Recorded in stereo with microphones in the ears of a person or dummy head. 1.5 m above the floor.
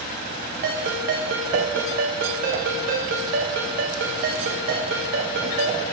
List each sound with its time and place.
0.6 s a ringtone: 55° right (ahead or behind), 1.0 m